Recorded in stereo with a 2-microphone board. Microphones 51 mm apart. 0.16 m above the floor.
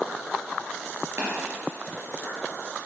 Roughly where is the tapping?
Right.